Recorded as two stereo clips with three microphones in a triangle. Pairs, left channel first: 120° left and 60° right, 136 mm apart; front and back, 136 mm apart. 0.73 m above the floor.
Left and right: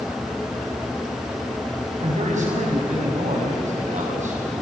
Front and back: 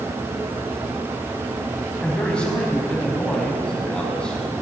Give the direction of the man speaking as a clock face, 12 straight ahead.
3 o'clock.